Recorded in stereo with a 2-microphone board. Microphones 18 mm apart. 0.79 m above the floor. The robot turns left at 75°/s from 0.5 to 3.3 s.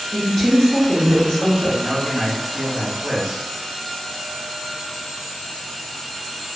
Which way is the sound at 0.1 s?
160° left.